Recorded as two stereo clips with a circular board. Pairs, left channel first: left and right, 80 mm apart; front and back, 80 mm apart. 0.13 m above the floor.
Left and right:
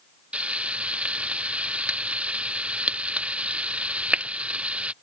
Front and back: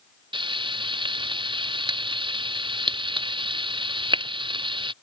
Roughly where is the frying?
Behind.